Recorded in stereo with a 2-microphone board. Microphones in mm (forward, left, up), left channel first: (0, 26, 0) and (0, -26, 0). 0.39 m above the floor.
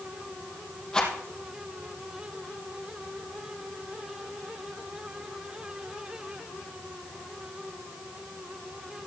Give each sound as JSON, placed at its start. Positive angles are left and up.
{"t": 0.9, "sound": "a rattle", "side_deg": 15, "distance_m": 3.5}